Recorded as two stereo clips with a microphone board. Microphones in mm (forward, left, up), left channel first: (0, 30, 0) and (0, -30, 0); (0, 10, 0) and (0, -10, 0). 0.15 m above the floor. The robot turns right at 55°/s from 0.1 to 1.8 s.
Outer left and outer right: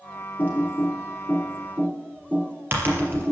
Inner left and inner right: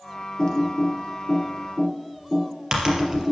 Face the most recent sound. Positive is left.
turn(degrees=-40)  # may be behind; listen again after turning